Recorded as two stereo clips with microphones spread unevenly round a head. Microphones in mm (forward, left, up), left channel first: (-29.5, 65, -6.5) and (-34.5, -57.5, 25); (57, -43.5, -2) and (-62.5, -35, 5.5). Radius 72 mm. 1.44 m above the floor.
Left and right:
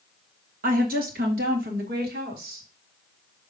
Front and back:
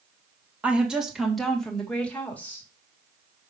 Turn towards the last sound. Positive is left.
turn(degrees=-80)